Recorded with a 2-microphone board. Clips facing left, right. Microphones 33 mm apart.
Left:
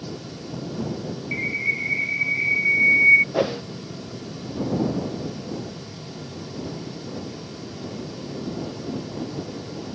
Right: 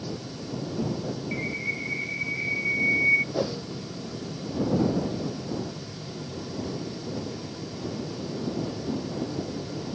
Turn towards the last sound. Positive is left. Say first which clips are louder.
# left 5 dB
turn(degrees=55)  # may be behind; listen again after turning